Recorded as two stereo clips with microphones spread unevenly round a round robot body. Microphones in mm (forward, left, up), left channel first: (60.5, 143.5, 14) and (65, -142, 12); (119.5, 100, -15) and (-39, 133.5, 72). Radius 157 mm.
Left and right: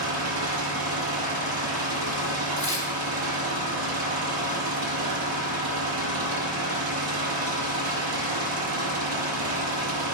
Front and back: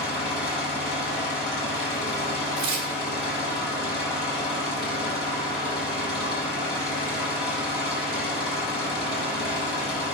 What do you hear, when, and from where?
0.0 s an engine running: 55° right, 4.5 m
2.6 s tearing paper: 165° right, 2 m